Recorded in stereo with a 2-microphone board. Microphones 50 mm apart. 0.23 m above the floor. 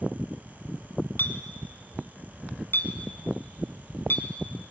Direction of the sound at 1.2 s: 50° left (ahead or behind).